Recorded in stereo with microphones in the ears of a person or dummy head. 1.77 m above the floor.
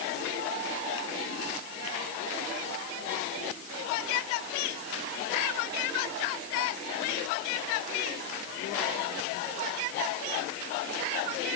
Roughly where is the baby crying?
I don't hear a baby crying.